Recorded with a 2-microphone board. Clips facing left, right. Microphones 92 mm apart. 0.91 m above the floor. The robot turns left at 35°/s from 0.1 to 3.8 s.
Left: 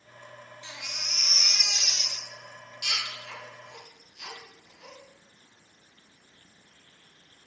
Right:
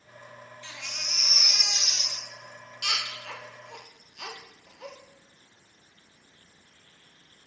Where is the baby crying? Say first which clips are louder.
Even; 15° left (ahead or behind), 1.6 m; by 5.0 s 75° right (ahead or behind), 1.6 m.